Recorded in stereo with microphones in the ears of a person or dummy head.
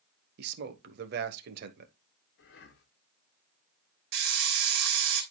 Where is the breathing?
60° left (ahead or behind), 1.3 m.